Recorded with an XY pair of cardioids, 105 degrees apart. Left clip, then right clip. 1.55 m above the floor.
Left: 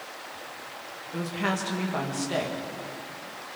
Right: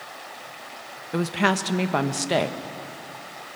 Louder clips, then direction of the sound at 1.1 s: Right 7 dB; 60° right.